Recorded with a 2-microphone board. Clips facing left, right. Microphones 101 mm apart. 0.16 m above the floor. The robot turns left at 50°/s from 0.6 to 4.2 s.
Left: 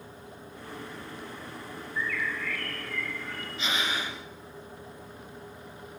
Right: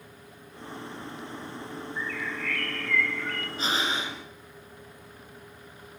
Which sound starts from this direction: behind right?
Breathing, at 3.6 s.